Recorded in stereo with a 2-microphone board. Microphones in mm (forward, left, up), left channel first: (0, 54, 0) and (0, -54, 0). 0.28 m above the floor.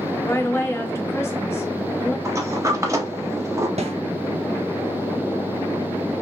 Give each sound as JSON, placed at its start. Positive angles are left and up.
{"t": 0.2, "sound": "a woman speaking", "side_deg": 25, "distance_m": 0.9}
{"t": 2.2, "sound": "a sliding door", "side_deg": -30, "distance_m": 0.8}
{"t": 3.8, "sound": "a snare drum", "side_deg": -80, "distance_m": 1.0}